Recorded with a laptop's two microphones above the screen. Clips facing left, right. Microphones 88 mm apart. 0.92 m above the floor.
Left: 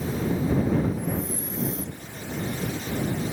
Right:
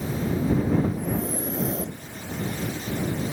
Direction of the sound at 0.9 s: 75° right (ahead or behind).